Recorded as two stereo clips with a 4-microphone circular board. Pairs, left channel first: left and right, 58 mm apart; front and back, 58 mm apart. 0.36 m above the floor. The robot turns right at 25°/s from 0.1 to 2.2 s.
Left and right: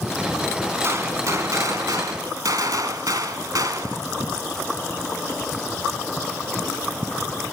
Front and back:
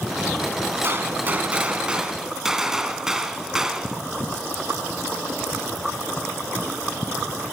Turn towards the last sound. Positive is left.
turn(degrees=-100)